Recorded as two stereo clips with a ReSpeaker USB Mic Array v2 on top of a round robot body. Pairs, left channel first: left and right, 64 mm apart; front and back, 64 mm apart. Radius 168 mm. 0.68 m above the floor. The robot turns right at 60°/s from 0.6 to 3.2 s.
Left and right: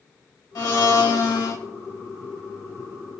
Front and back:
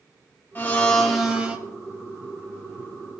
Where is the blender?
60° left, 2.5 m; by 1.6 s 120° left, 2.5 m.